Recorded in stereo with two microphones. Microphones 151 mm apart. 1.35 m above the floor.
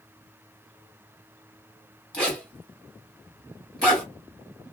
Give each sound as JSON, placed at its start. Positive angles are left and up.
{"t": 2.1, "sound": "a zipper", "side_deg": 5, "distance_m": 2.5}